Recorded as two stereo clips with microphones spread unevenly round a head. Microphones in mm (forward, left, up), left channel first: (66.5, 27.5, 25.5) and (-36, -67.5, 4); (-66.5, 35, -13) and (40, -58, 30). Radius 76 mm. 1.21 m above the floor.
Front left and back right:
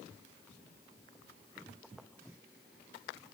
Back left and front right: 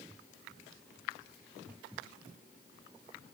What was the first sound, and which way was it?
Only background noise.